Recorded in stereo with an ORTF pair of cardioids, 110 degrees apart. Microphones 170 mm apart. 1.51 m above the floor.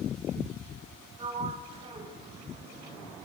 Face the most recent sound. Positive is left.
turn(degrees=-35)